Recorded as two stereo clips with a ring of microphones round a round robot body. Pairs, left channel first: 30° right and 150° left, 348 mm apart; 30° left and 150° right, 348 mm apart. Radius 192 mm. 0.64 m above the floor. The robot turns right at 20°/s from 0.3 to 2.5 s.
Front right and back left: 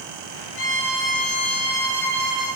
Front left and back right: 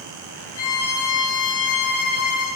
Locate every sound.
0.6 s a violin: 25° left, 3 m; by 2.6 s 65° left, 3 m